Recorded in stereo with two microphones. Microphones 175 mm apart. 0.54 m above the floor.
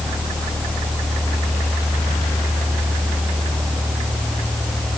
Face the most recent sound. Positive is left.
No sound to turn to.